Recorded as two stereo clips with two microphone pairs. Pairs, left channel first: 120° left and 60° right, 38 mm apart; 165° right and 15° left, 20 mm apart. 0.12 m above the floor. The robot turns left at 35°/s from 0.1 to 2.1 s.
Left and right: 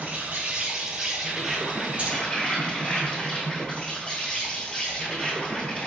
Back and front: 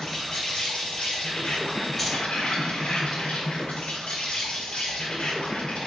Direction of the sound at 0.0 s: 110° right.